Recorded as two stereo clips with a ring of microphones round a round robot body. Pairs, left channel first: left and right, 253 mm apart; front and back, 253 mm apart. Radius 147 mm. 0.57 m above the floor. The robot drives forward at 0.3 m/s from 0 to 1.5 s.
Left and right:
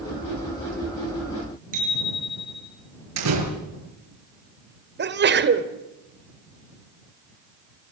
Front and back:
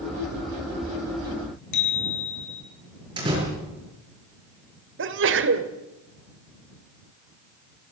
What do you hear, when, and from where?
1.7 s a bicycle bell: 25° right, 7.5 m
3.2 s a door slam: 105° right, 7 m
5.0 s a sneeze: 135° right, 2 m